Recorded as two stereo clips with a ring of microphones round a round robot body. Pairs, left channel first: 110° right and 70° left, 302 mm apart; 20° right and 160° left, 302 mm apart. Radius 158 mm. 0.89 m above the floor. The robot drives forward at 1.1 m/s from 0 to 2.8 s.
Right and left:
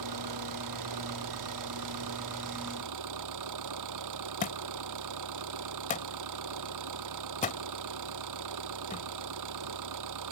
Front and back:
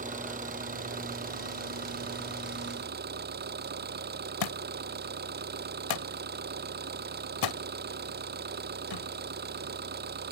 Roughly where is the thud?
Ahead right.